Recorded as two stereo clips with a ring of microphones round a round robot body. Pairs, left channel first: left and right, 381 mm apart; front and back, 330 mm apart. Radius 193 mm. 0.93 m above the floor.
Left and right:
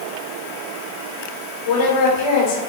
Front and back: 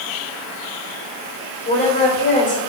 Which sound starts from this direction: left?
A woman speaking, at 1.6 s.